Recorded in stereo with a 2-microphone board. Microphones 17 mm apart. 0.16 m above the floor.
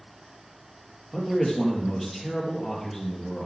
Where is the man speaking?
5° left (ahead or behind), 4 m.